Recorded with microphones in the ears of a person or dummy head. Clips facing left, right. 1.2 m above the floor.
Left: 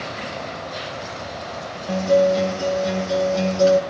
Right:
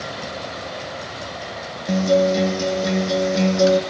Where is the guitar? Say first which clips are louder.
Even; 25° right (ahead or behind), 2 m.